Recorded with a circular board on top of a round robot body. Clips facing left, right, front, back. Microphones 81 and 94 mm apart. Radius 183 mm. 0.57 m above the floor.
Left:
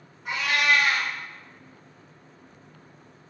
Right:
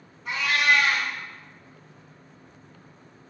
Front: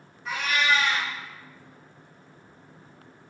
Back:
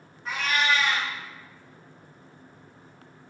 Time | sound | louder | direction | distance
0.2 | a cat meowing | right 1 dB, even | 130° left | 0.6 m